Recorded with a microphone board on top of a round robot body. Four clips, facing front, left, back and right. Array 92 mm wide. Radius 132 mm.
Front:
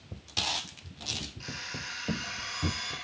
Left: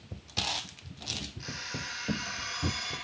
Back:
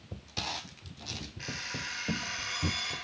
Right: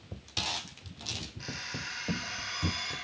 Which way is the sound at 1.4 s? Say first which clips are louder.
Right 1 dB, back 5 dB; straight behind.